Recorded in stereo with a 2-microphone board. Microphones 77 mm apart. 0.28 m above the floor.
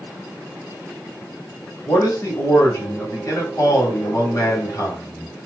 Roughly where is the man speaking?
Left.